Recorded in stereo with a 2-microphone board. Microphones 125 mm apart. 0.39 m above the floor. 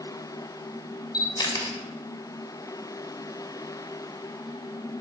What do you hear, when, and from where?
1.1 s a camera shutter: 35° left (ahead or behind), 2 m